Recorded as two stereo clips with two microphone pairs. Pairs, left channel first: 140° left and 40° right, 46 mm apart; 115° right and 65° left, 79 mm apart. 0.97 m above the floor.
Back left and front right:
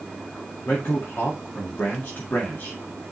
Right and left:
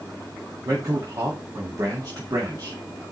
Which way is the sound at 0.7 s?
100° left.